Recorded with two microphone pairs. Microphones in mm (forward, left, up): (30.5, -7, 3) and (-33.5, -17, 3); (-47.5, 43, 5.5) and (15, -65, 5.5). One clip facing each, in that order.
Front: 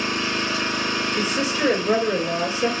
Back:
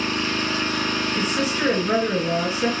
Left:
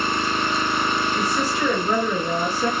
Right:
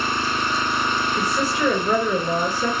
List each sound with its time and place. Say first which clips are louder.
0.0 s an engine running: even, left 1 dB; 80° left, 1.1 m
1.2 s a woman speaking: front 1 dB, even; 145° left, 1.8 m